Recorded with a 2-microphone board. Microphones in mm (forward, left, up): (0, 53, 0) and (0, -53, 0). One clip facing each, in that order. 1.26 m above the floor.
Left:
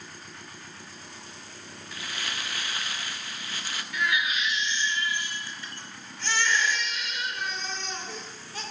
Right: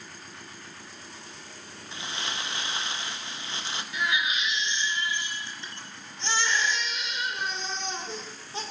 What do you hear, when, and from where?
1.9 s crumpling: 25° right (ahead or behind), 0.8 m
3.9 s a baby crying: 25° right (ahead or behind), 2.5 m